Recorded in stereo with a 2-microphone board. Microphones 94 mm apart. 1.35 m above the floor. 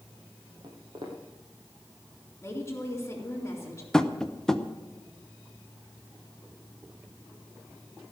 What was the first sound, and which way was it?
Footsteps, 50° right (ahead or behind).